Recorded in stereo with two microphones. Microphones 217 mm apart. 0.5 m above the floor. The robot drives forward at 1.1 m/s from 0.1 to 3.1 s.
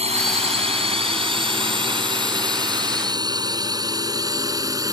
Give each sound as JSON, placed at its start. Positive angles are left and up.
{"t": 0.0, "sound": "a drone", "side_deg": -30}